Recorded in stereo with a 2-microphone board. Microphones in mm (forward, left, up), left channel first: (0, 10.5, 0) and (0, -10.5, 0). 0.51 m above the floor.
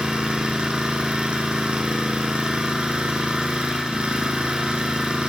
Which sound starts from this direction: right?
An engine running, at 0.0 s.